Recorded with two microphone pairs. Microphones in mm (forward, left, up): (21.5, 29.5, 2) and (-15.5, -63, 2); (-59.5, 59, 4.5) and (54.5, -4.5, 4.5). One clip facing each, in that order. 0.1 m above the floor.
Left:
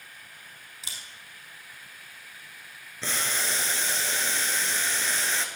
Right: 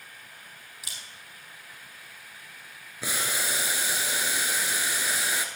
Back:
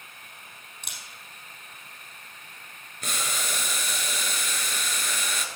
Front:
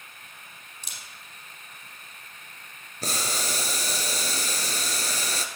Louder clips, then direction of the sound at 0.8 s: Left 1 dB, back 2 dB; 130° left.